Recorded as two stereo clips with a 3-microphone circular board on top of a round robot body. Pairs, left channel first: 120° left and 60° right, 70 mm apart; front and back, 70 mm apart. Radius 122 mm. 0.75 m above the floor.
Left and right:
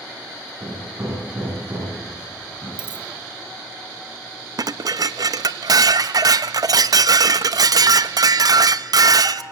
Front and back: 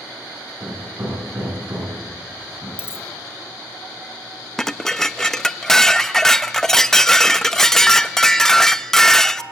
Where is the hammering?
120° right, 8.5 m.